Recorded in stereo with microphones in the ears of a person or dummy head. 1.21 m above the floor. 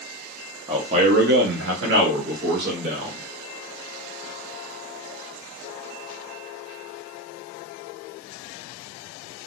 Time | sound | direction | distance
0.7 | a man speaking | 20° right (ahead or behind) | 0.6 m